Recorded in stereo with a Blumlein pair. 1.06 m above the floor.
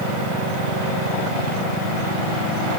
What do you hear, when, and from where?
Only background noise.